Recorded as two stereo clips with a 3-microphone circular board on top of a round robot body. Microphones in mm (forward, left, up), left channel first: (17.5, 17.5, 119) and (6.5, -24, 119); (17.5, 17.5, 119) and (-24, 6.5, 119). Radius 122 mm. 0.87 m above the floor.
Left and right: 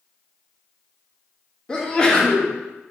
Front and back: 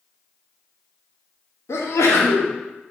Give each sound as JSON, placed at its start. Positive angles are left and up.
{"t": 1.7, "sound": "a sneeze", "azimuth_deg": 5, "distance_m": 1.9}